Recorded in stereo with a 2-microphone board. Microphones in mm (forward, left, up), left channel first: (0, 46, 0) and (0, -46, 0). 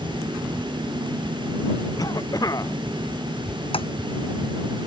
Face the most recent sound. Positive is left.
turn(degrees=80)